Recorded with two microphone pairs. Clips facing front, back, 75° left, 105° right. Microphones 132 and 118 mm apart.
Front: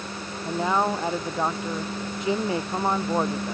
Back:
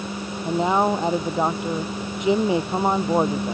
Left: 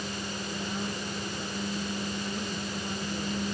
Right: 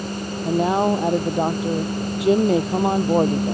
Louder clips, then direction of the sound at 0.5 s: Back 4 dB, right 20 dB; 105° right.